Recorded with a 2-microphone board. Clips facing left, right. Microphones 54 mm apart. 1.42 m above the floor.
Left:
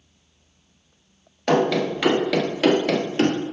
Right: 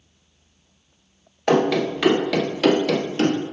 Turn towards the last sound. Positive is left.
turn(degrees=30)  # may be behind; listen again after turning